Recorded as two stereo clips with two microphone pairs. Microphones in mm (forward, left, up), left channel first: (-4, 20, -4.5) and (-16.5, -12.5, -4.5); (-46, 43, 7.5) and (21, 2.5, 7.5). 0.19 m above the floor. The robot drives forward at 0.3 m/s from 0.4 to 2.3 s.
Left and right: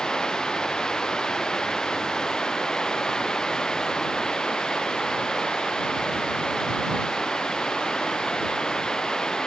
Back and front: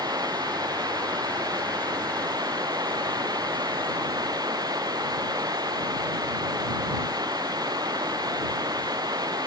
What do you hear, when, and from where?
0.0 s running water: straight ahead